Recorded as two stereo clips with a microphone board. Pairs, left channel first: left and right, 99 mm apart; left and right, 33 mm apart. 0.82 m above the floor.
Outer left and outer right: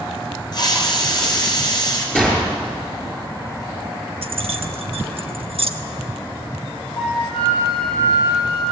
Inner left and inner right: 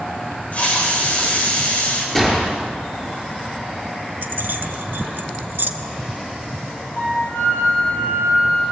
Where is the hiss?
45° left (ahead or behind), 4 m.